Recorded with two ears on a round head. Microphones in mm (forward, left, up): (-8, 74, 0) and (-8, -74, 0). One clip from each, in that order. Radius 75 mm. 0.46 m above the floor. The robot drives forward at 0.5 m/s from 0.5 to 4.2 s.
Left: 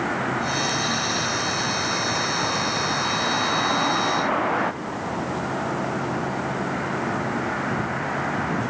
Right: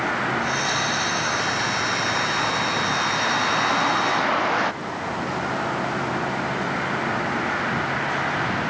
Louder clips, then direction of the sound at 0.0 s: Right 2 dB; 80° right.